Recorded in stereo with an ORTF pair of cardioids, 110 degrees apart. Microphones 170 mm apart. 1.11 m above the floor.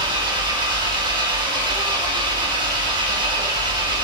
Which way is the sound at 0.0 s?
25° right.